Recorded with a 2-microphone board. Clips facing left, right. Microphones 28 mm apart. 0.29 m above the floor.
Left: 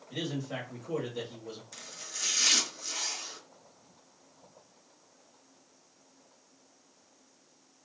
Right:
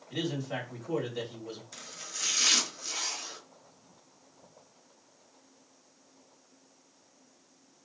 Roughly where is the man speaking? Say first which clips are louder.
Right 2 dB; centre.